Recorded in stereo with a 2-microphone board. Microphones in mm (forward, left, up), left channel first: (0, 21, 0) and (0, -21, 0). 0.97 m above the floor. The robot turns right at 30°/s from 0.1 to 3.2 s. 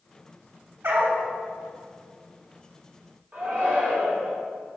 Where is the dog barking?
65° right (ahead or behind), 1.4 m.